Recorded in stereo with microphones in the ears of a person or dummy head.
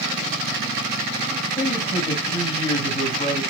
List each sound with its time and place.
1.6 s a man speaking: 25° left (ahead or behind), 6 m